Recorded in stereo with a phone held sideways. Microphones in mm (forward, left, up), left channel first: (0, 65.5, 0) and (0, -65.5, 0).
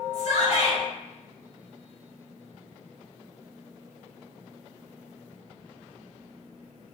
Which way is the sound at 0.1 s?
60° left (ahead or behind).